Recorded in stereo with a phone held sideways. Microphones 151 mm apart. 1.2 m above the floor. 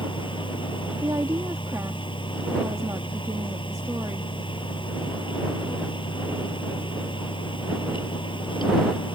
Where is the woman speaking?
20° right (ahead or behind).